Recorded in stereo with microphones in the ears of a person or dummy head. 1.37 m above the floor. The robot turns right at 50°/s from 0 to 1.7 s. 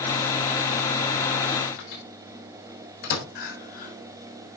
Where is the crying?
55° left (ahead or behind), 3 m.